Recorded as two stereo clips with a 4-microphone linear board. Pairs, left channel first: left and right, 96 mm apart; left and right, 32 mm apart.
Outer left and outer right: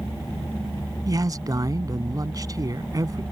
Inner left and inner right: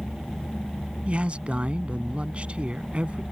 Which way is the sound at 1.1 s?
40° right (ahead or behind).